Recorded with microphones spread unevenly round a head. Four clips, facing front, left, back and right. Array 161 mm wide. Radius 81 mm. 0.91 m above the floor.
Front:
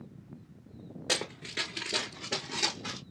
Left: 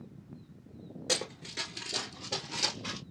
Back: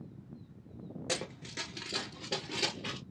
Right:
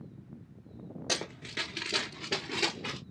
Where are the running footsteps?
15° right, 0.9 m; by 3.0 s 125° right, 1.2 m.